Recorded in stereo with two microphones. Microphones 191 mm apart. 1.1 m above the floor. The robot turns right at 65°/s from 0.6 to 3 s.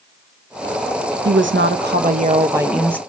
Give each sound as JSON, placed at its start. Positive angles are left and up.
{"t": 1.2, "sound": "a woman speaking", "azimuth_deg": -100, "distance_m": 0.6}